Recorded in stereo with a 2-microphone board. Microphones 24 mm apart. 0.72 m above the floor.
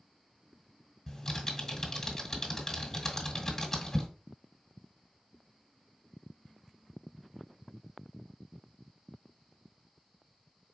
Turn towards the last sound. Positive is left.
turn(degrees=20)  # may be behind; listen again after turning